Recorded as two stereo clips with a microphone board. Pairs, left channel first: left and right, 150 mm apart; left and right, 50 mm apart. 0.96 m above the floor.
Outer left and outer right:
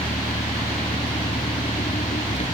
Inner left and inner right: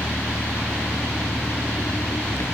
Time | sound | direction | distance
0.0 | an engine running | 55° left (ahead or behind) | ?